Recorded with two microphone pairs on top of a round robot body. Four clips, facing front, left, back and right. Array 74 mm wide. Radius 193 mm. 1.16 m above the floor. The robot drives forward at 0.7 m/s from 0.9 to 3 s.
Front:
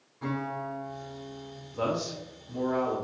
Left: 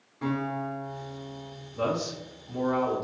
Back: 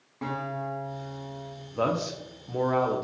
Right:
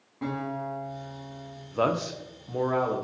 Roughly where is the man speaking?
Right.